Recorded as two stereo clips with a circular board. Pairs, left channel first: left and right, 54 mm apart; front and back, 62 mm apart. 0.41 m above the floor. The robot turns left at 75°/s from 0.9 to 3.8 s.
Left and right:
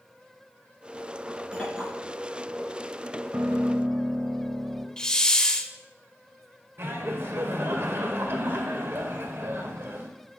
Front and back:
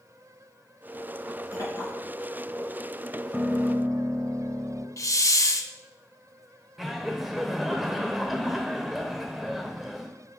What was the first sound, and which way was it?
A clink, 25° left.